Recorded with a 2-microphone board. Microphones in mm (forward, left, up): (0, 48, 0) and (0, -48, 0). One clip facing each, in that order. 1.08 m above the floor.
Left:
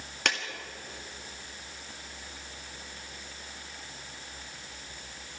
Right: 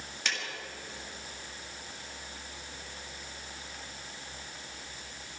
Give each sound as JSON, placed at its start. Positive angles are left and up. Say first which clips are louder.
{"t": 0.2, "sound": "a clap", "louder": "left 5 dB", "side_deg": 60, "distance_m": 1.8}